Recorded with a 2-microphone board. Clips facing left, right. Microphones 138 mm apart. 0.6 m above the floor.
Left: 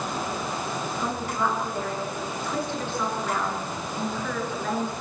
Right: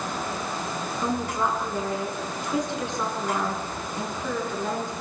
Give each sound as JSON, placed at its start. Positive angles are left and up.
{"t": 1.0, "sound": "a woman speaking", "side_deg": -15, "distance_m": 7.0}